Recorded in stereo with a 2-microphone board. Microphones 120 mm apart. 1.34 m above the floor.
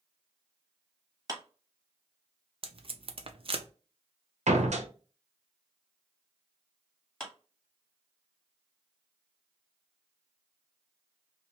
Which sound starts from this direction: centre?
A clap, at 7.2 s.